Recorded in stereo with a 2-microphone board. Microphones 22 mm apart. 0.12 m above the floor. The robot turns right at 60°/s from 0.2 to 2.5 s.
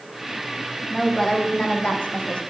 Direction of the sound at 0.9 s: 15° left.